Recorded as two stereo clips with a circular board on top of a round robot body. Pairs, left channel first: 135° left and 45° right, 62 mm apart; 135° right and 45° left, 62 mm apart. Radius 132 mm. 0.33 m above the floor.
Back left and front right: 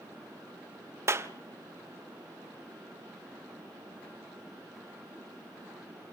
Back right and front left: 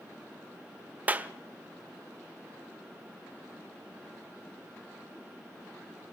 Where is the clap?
15° right, 1.4 m.